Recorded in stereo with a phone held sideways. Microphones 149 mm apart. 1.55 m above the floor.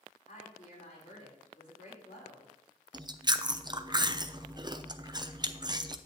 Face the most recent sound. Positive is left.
turn(degrees=-30)  # may be behind; listen again after turning